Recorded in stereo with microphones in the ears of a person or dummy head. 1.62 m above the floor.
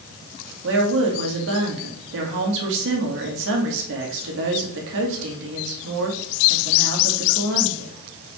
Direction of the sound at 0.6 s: 70° right (ahead or behind).